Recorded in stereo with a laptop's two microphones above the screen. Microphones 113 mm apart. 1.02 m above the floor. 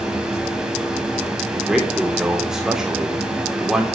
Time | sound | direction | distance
0.0 | a fan | 5° right (ahead or behind) | 3.5 m
1.5 | a man speaking | 5° right (ahead or behind) | 3 m